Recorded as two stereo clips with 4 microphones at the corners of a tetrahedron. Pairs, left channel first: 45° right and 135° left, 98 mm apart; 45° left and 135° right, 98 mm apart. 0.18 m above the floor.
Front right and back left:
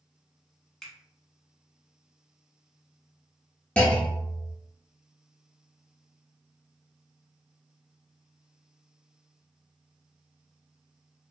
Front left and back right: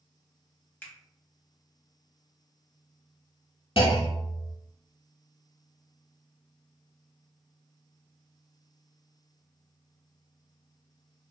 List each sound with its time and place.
0.8 s a finger snap: 35° left, 0.8 m
3.8 s a clunk: 30° left, 0.6 m